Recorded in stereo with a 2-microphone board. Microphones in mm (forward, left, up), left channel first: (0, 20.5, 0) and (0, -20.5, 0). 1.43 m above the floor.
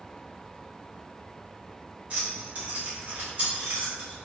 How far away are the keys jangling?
About 1.3 m.